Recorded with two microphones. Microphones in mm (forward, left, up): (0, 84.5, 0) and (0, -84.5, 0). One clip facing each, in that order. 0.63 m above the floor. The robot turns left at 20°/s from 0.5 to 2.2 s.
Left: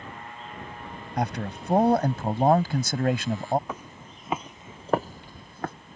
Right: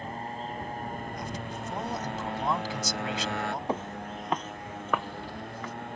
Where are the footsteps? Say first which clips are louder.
Right 7 dB; 30° right (ahead or behind); by 5.7 s 60° left (ahead or behind).